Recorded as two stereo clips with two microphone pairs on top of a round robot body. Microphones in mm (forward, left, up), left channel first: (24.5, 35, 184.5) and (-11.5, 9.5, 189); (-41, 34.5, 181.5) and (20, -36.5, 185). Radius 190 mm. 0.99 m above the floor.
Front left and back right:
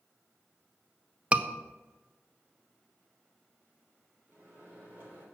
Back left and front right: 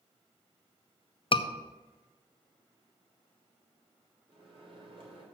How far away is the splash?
No splash in this recording.